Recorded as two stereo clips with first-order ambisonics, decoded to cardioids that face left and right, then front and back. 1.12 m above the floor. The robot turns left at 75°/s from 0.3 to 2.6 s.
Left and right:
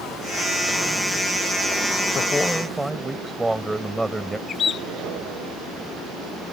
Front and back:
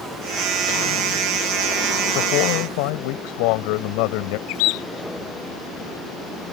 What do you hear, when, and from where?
2.1 s a man speaking: 30° left; by 4.4 s 5° right
4.5 s a bird: 25° left